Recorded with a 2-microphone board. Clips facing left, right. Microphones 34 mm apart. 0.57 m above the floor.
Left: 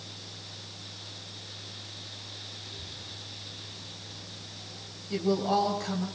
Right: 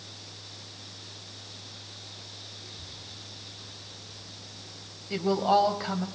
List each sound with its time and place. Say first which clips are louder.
2.6 s a child speaking: left 2 dB; 5° right (ahead or behind), 7 m
5.1 s a woman speaking: right 3 dB; 30° right (ahead or behind), 3 m